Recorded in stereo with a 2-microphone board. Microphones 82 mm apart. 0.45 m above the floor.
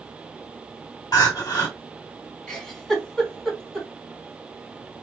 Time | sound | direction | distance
1.1 | crying | 50° left (ahead or behind) | 1.8 m
2.5 | a giggle | 5° left (ahead or behind) | 1.6 m